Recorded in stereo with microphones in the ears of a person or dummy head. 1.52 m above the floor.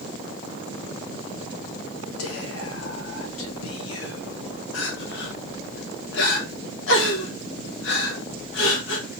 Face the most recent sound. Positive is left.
turn(degrees=85)